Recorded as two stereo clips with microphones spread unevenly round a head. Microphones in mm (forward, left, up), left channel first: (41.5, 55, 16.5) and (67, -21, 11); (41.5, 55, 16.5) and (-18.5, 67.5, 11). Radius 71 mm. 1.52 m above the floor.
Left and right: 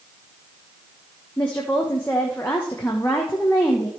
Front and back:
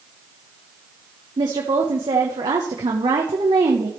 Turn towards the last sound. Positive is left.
turn(degrees=-175)